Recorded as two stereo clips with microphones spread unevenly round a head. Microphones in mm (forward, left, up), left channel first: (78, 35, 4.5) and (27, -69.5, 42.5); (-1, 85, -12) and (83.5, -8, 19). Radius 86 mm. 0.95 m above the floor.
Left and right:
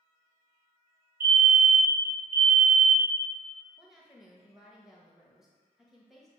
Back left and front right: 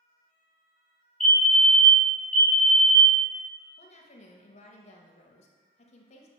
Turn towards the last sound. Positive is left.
turn(degrees=150)